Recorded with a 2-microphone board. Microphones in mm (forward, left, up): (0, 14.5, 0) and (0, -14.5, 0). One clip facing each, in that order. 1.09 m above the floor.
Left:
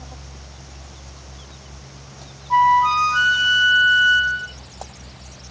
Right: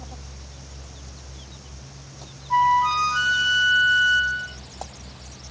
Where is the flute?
15° left (ahead or behind), 0.7 m.